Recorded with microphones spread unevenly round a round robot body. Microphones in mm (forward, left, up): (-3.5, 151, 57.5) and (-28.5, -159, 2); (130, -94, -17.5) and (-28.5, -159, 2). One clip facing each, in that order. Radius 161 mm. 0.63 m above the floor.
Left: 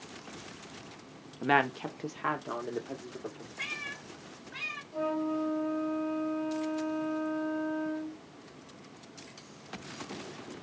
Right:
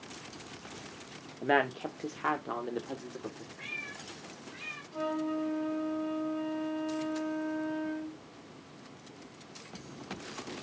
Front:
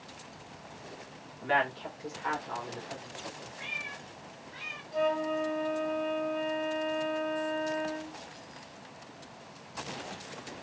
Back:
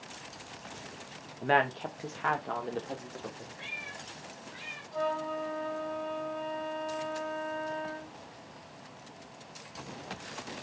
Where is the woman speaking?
150° left, 0.8 m; by 3.5 s 165° right, 1.6 m.